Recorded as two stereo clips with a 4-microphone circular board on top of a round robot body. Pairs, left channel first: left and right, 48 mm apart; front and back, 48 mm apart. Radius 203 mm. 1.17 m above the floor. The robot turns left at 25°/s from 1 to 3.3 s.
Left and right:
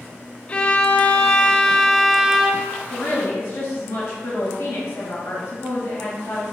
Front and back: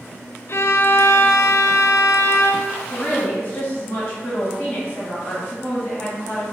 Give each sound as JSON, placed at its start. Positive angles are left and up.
{"t": 0.5, "sound": "a violin", "azimuth_deg": 25, "distance_m": 0.5}
{"t": 2.9, "sound": "a woman speaking", "azimuth_deg": 55, "distance_m": 1.4}